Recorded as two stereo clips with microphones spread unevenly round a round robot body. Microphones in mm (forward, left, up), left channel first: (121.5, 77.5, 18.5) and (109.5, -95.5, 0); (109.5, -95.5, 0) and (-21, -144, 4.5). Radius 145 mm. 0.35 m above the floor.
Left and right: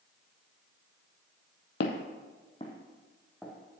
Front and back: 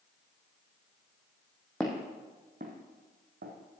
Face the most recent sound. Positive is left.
turn(degrees=180)